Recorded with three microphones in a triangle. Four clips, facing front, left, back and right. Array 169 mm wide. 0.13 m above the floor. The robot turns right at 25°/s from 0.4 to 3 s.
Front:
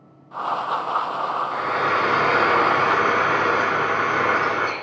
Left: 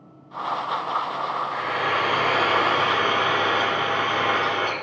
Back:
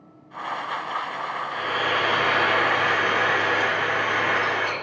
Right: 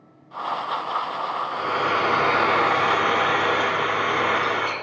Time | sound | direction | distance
1.5 | frying | 45° right | 1.6 m